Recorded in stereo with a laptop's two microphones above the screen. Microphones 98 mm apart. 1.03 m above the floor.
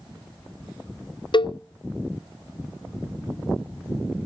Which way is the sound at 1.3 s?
55° left (ahead or behind).